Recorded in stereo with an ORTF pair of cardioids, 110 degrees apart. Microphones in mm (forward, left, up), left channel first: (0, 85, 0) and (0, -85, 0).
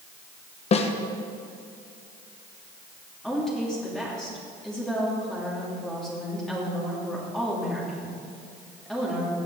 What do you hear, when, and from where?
0.7 s a snare drum: 40° left, 1.3 m
3.2 s a woman speaking: 5° left, 3 m